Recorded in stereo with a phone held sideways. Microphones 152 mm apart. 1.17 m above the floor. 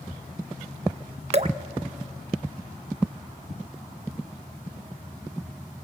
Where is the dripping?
45° right (ahead or behind), 0.7 m.